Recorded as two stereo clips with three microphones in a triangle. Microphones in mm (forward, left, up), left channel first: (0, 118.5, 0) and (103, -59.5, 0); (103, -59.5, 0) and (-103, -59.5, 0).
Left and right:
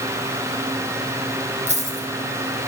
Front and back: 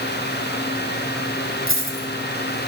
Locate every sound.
1.7 s a dropped coin: 5° right, 2 m